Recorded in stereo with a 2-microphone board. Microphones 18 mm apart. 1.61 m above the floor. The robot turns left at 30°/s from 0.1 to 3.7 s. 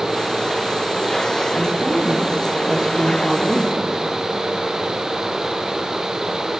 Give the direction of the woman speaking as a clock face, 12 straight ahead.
3 o'clock.